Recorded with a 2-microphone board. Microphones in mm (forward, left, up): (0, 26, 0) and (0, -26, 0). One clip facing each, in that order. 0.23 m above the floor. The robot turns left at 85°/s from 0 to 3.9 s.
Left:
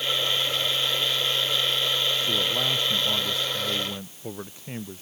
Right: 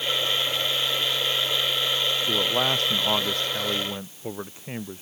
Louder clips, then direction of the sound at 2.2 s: Right 2 dB; 20° right.